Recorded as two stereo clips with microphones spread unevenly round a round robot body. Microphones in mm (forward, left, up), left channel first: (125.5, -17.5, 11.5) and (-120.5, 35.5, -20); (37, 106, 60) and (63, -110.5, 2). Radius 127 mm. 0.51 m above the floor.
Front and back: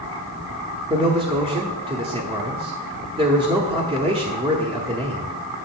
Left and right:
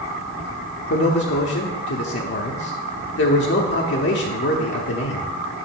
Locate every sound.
0.9 s a man speaking: 125° left, 0.8 m